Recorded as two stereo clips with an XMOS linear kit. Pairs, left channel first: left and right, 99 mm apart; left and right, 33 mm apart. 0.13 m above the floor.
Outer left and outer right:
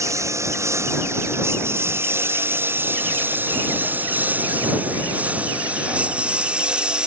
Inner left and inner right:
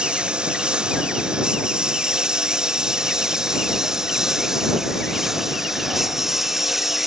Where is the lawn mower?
30° right (ahead or behind); by 7.1 s 10° right (ahead or behind).